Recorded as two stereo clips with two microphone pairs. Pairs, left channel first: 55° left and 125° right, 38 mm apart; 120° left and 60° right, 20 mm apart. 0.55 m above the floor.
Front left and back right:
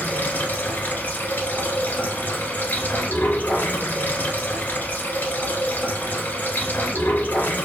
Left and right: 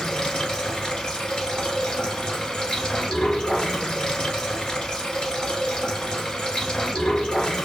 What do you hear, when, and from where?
0.0 s running water: 85° left, 0.9 m